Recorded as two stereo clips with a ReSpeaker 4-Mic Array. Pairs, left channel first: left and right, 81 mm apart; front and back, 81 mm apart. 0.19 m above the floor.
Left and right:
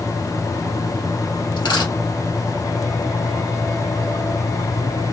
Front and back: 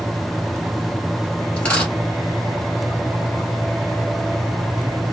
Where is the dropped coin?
75° left, 1.4 m.